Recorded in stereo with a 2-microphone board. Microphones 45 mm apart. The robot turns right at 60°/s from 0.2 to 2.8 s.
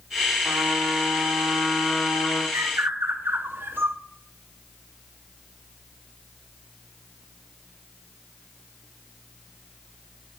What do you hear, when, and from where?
0.4 s a trumpet: 60° right, 4 m; by 2.4 s 60° left, 4 m
2.5 s a bird: 65° right (ahead or behind), 1.8 m; by 4.0 s 55° right (ahead or behind), 1.8 m